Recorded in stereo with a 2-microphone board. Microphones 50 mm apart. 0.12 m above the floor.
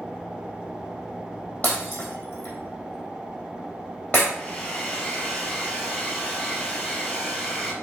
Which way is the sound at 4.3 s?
25° left (ahead or behind).